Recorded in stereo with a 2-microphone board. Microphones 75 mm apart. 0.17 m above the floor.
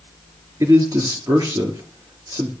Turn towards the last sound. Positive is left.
turn(degrees=-55)  # may be behind; listen again after turning